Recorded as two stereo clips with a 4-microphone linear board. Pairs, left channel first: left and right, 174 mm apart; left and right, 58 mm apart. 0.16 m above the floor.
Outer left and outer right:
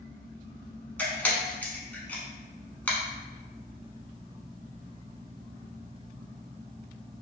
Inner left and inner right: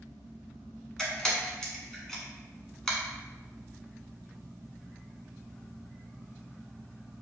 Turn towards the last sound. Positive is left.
turn(degrees=10)  # may be behind; listen again after turning